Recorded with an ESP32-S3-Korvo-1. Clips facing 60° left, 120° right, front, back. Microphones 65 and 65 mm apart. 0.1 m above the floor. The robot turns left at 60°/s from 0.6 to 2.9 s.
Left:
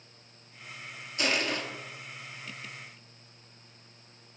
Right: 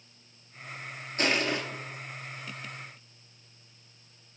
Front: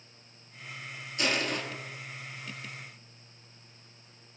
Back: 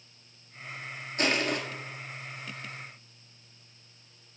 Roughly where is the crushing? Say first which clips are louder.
Right 2 dB, back 2 dB; behind right.